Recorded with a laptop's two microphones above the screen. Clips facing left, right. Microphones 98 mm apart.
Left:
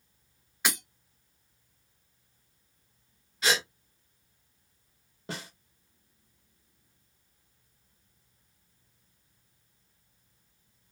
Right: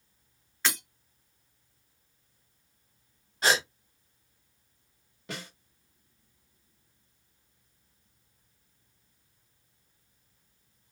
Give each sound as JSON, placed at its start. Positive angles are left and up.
{"t": 0.7, "sound": "breaking glass", "side_deg": 15, "distance_m": 0.9}
{"t": 3.4, "sound": "a gasp", "side_deg": -40, "distance_m": 1.3}
{"t": 5.3, "sound": "a snare drum", "side_deg": 35, "distance_m": 1.3}